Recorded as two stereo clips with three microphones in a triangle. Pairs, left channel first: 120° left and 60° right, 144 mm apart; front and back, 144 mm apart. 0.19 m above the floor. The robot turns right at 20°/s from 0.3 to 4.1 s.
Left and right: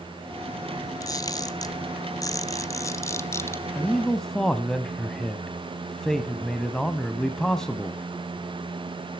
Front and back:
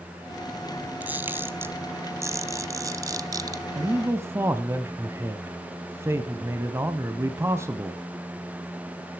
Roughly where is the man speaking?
Behind.